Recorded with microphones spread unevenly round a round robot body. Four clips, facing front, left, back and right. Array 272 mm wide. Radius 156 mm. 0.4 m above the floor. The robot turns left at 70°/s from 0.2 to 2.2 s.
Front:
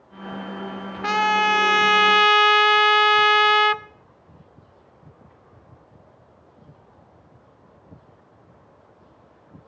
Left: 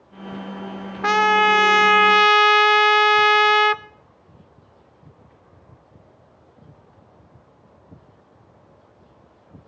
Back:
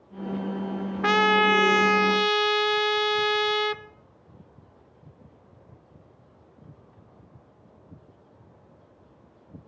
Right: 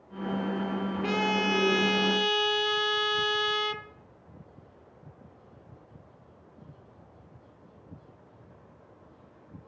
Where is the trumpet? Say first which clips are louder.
Left 13 dB, front 1 dB; 135° left, 0.8 m; by 3.8 s 55° left, 0.8 m.